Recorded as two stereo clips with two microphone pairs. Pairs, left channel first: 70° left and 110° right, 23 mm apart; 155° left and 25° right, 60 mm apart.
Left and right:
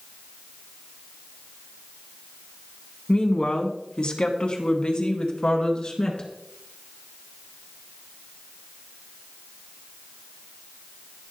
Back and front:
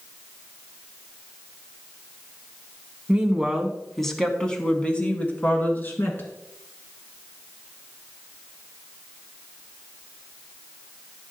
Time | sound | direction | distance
3.1 | a woman speaking | 50° left | 1.8 m